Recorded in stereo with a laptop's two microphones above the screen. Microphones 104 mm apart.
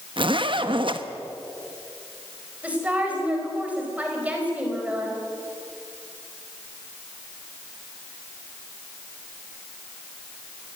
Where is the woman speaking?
15° right (ahead or behind), 4.5 m.